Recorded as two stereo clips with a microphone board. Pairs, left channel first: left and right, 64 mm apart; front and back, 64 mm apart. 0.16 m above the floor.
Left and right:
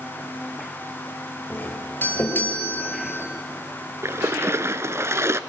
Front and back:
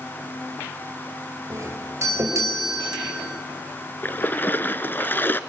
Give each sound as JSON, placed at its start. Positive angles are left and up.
{"t": 1.5, "sound": "a doorbell", "azimuth_deg": 145, "distance_m": 4.0}
{"t": 4.0, "sound": "a splash", "azimuth_deg": -55, "distance_m": 1.0}